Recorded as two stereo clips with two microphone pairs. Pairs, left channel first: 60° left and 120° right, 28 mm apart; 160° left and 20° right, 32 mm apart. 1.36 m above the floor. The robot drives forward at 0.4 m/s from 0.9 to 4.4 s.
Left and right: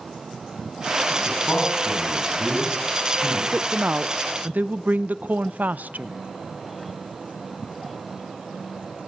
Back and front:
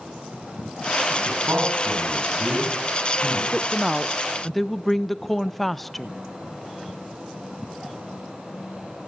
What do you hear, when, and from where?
1.1 s a man speaking: 15° left, 9 m; by 3.4 s 20° left, 8.5 m
3.5 s a woman speaking: 90° right, 0.7 m; by 6.2 s 115° right, 0.8 m